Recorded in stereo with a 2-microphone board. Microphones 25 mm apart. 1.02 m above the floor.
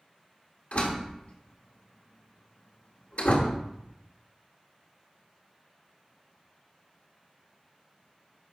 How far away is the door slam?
About 1.5 m.